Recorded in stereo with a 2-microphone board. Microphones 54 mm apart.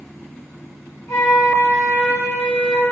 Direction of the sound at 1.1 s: 75° left (ahead or behind).